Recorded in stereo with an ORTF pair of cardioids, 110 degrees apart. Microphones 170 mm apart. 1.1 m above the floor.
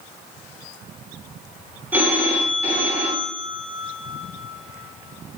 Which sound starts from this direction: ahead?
A phone ringing, at 1.9 s.